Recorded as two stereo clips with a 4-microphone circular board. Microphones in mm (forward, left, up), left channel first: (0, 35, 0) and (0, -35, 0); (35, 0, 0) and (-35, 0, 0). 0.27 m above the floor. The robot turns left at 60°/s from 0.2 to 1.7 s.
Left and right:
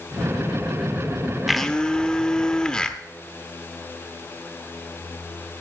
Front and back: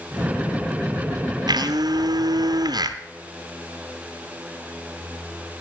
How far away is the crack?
I don't hear a crack.